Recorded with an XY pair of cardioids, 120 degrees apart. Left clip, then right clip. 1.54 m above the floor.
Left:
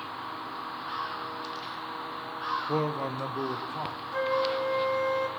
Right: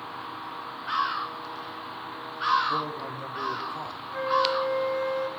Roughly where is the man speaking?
Ahead left.